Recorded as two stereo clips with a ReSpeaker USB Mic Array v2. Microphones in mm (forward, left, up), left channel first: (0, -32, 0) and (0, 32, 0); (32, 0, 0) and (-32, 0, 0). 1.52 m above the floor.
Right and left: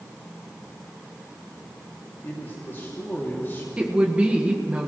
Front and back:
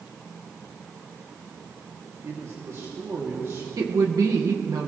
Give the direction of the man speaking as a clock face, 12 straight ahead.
5 o'clock.